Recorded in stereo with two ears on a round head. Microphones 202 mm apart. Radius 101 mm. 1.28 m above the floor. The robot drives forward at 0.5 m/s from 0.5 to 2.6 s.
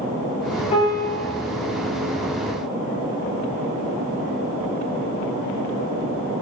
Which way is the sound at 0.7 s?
30° left (ahead or behind).